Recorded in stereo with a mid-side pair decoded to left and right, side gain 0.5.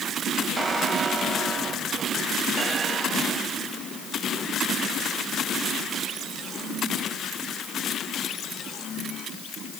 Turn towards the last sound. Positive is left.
turn(degrees=-35)